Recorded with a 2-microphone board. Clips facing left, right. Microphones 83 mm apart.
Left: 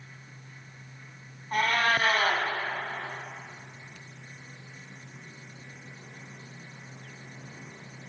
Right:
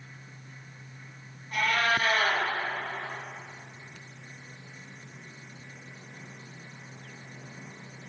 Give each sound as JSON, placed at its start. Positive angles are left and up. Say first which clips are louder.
{"t": 1.5, "sound": "a cat meowing", "louder": "left 1 dB", "side_deg": 40, "distance_m": 2.5}